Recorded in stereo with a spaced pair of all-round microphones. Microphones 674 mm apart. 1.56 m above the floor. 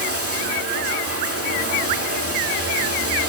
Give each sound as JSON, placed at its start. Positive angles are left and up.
{"t": 0.0, "sound": "running water", "side_deg": -20, "distance_m": 3.0}